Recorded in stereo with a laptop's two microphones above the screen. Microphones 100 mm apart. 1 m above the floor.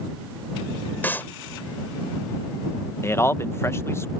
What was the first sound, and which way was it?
A clap, 20° left (ahead or behind).